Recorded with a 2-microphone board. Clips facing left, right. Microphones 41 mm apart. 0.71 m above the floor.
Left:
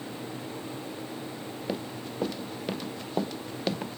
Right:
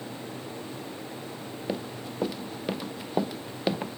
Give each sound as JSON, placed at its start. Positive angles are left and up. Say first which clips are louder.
{"t": 1.7, "sound": "running footsteps", "louder": "right 1 dB", "side_deg": -5}